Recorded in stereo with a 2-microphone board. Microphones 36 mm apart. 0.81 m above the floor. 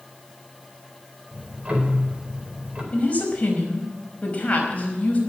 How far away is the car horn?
I don't hear a car horn.